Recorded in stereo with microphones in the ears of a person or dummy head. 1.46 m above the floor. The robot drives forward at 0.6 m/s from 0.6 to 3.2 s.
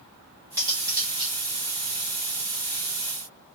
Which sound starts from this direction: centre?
Cutlery clinking, at 0.6 s.